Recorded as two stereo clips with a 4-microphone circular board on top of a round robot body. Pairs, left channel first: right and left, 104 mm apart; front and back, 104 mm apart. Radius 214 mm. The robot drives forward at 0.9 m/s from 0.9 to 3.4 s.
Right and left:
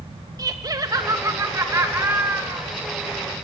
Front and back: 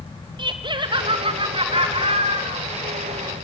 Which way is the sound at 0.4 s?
140° left.